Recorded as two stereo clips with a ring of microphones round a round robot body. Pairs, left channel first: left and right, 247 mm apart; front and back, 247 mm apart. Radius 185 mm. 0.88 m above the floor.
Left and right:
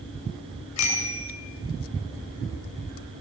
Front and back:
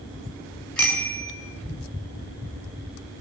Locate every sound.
0.8 s a bicycle bell: 85° left, 8 m